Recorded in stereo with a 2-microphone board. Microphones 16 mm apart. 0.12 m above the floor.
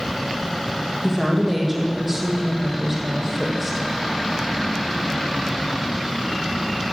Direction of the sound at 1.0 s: 10° right (ahead or behind).